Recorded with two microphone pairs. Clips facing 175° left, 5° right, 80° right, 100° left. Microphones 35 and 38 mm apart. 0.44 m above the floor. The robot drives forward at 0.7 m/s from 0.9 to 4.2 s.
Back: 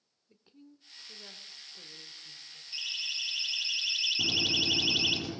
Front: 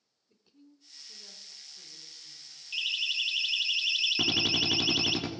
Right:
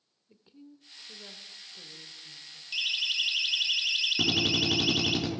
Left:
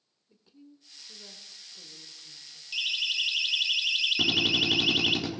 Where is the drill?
5° left, 4 m.